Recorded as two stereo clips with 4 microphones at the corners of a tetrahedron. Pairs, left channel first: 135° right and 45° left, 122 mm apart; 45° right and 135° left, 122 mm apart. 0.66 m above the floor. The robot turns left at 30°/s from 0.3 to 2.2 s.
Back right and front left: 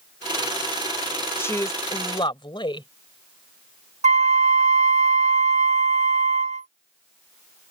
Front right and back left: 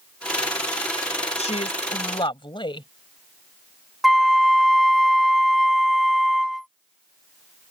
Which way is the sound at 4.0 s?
45° left.